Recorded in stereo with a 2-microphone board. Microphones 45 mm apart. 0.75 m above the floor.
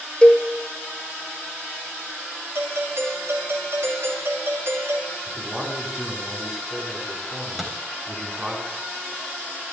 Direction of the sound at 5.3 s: 20° right (ahead or behind).